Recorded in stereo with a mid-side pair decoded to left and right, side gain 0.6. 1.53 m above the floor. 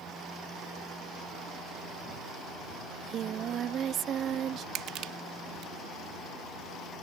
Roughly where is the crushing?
Ahead right.